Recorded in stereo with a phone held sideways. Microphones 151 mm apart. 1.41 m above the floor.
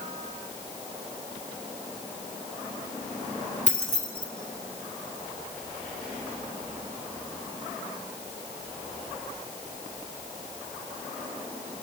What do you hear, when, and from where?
3.7 s keys jangling: 60° left (ahead or behind), 2.5 m